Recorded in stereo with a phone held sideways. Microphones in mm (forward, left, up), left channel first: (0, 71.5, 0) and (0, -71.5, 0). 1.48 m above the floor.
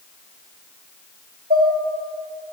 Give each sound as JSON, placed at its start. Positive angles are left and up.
{"t": 1.5, "sound": "dishes clattering", "side_deg": -80, "distance_m": 4.0}